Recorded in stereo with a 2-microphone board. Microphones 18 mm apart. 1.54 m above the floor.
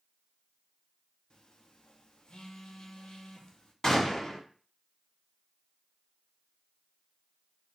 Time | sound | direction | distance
1.3 | a phone buzzing | 55° left (ahead or behind) | 0.5 m
3.8 | a gunshot | 40° left (ahead or behind) | 1.3 m